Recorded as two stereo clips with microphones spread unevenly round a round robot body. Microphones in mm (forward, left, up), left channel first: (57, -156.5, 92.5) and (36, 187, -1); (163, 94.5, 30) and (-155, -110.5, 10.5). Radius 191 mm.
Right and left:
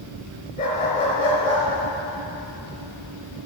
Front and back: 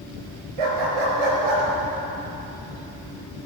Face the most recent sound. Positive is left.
turn(degrees=-170)